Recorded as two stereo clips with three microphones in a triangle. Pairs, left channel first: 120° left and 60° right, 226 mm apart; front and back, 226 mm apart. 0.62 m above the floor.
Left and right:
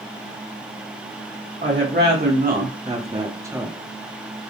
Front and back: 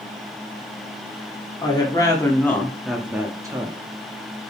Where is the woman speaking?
65° right, 1.6 m; by 3.8 s 140° right, 1.0 m.